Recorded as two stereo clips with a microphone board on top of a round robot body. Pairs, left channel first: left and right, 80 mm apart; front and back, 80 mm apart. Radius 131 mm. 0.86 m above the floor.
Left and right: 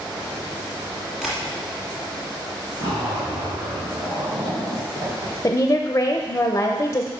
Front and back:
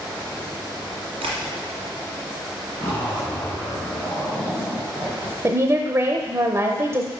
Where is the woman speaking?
135° left, 0.8 m.